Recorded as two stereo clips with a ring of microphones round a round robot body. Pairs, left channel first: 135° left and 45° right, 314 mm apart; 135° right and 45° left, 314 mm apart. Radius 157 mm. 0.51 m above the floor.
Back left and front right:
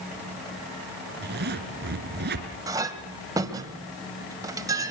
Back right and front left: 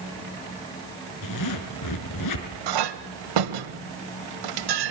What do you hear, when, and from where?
1.2 s a zipper: 105° right, 4 m
2.7 s a clink: 35° left, 1.8 m